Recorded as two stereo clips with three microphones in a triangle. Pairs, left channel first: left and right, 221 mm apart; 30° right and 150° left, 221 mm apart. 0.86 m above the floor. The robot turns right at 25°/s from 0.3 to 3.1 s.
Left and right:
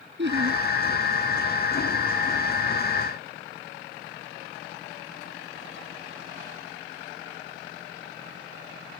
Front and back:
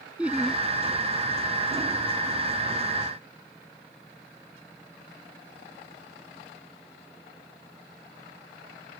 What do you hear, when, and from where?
0.2 s laughter: 125° right; by 0.6 s 115° right